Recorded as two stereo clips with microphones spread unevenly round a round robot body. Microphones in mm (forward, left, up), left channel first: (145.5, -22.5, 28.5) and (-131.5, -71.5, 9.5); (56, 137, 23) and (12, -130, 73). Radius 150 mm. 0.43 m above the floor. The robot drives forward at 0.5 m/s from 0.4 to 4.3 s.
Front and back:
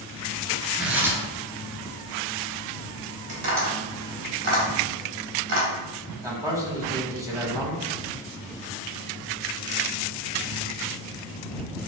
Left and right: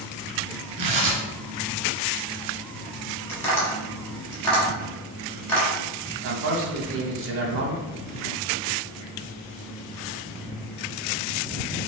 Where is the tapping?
155° left, 2 m; by 5.7 s 160° left, 2.5 m.